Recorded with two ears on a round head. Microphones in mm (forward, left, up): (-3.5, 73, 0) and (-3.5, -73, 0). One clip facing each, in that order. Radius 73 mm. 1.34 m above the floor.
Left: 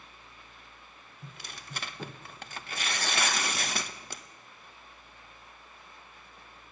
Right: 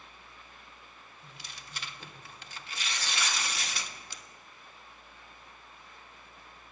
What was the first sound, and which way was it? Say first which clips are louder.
Tearing paper: left 6 dB; 45° left (ahead or behind).